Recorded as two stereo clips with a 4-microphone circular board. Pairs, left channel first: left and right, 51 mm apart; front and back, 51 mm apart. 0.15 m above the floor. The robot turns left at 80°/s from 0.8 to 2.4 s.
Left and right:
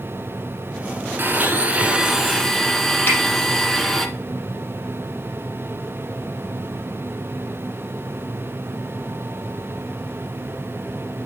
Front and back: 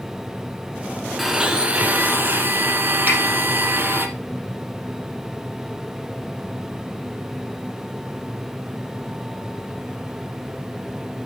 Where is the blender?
95° right, 1.4 m; by 4.1 s 170° left, 1.4 m.